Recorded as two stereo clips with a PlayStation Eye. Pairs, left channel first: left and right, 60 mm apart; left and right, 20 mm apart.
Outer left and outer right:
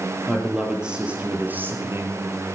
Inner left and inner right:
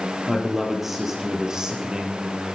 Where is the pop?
No pop in this recording.